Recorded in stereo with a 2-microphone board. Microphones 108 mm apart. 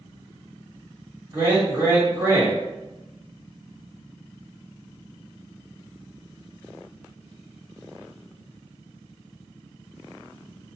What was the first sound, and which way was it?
A man speaking, 25° right (ahead or behind).